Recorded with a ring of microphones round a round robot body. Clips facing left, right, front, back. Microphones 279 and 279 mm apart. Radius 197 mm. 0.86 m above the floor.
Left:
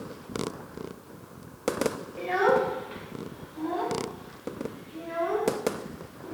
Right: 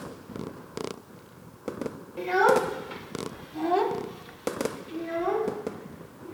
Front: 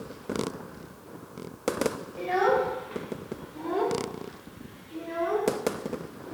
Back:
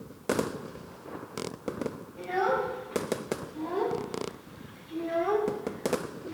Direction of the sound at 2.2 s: 50° right.